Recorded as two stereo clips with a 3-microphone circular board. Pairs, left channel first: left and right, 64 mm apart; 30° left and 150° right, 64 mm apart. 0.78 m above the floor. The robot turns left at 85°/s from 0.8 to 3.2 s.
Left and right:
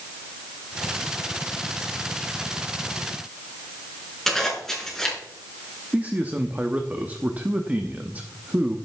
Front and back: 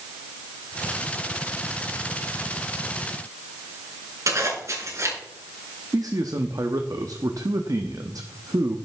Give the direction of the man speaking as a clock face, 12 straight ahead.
5 o'clock.